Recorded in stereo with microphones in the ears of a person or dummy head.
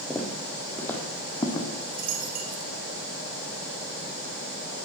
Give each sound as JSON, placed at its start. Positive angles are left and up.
{"t": 0.1, "sound": "footsteps", "side_deg": 0, "distance_m": 2.0}
{"t": 1.8, "sound": "a dropped coin", "side_deg": -50, "distance_m": 2.5}